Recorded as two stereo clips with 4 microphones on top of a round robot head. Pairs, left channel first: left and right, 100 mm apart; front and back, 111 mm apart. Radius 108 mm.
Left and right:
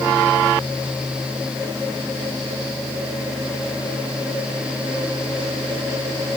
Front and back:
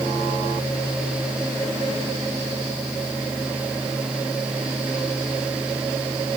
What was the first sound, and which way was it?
Only background noise.